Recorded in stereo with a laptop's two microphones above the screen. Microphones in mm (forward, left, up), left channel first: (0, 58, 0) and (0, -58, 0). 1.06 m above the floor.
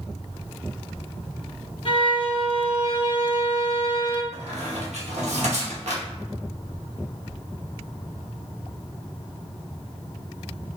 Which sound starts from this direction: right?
A squeak, at 4.3 s.